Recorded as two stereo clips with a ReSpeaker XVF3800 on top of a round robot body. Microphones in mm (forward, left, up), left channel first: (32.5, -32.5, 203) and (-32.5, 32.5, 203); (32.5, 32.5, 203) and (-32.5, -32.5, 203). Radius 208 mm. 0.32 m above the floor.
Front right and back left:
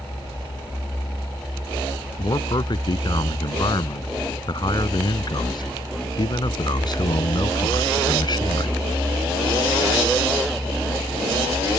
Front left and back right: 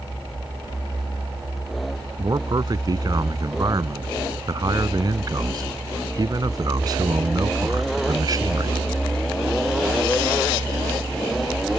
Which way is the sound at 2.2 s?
85° right.